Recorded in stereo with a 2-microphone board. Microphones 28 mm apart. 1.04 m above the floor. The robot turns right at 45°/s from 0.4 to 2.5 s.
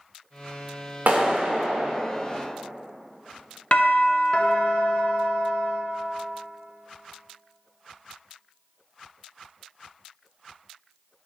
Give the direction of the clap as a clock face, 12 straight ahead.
4 o'clock.